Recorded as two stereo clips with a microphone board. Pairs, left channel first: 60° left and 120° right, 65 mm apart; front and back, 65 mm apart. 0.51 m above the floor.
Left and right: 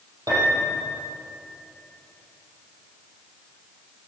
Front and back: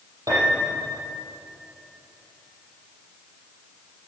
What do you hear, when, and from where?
0.3 s a piano: 145° right, 6 m